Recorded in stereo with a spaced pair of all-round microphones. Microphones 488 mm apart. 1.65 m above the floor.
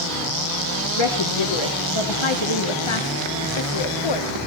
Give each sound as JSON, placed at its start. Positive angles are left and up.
{"t": 1.0, "sound": "a woman speaking", "side_deg": 70, "distance_m": 1.1}